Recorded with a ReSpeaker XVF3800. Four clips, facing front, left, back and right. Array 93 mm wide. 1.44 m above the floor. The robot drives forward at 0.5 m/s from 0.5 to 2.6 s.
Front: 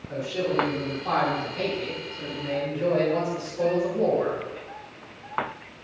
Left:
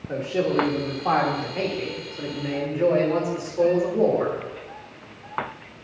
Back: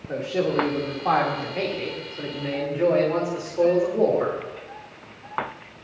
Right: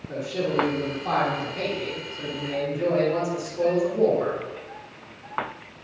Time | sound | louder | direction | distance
0.1 | a man speaking | left 3 dB, back 3 dB | 135° left | 3 m